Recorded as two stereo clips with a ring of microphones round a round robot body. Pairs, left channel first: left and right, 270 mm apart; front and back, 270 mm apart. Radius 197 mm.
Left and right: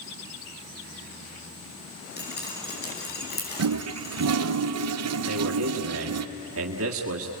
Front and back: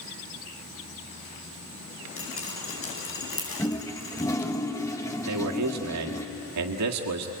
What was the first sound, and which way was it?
Dripping, 35° left.